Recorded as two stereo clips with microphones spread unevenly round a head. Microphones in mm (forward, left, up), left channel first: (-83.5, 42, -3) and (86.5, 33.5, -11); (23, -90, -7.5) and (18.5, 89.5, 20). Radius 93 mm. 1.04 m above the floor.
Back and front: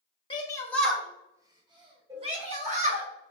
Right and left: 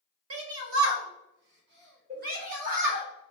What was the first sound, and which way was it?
A shout, 120° left.